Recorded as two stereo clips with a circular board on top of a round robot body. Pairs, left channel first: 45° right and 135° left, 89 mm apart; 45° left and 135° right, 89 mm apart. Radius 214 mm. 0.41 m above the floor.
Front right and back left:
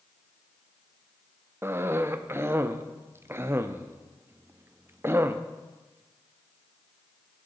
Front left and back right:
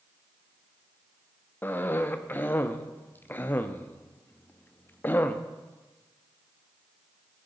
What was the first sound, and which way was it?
A cough, 95° left.